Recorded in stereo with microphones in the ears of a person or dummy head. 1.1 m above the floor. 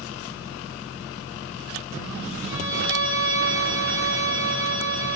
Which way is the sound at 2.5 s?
10° left (ahead or behind).